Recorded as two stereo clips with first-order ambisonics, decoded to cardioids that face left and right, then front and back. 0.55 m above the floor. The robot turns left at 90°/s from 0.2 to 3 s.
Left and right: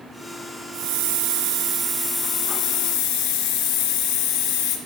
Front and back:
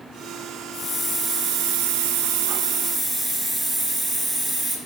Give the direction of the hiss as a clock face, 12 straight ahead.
2 o'clock.